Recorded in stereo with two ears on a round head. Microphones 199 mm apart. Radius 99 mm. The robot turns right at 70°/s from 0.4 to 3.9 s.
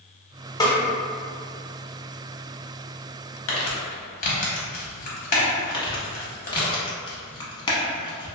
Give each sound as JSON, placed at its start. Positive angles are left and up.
{"t": 0.6, "sound": "a snare drum", "side_deg": 15, "distance_m": 0.6}
{"t": 3.5, "sound": "crumpling", "side_deg": 60, "distance_m": 0.8}
{"t": 5.7, "sound": "crumpling", "side_deg": 20, "distance_m": 0.7}